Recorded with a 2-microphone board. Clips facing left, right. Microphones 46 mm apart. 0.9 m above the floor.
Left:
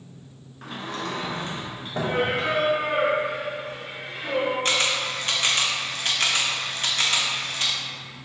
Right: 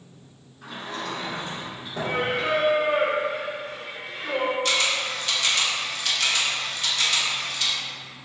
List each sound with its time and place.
0.6 s a sliding door: 55° left (ahead or behind), 0.8 m
2.0 s singing: 50° left (ahead or behind), 1.4 m
4.7 s a camera shutter: 35° left (ahead or behind), 0.5 m